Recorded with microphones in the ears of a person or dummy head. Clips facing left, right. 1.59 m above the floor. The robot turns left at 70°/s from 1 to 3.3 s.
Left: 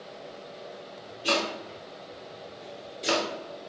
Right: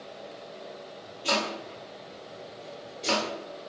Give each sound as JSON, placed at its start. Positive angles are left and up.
{"t": 1.2, "sound": "chopping", "side_deg": 15, "distance_m": 0.9}